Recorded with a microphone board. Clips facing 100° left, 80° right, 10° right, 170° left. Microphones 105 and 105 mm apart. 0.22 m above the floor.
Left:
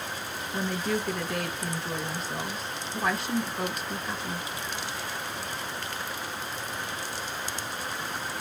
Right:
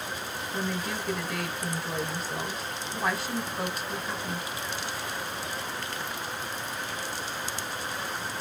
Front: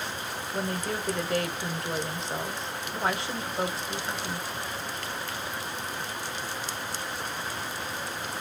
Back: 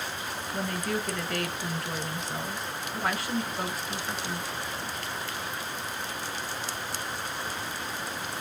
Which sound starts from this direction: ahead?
A woman speaking, at 0.5 s.